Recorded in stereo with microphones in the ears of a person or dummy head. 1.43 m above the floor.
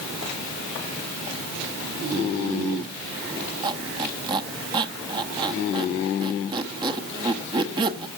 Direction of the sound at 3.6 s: 25° right (ahead or behind).